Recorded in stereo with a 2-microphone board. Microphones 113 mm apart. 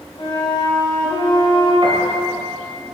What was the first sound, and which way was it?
A flute, 45° left (ahead or behind).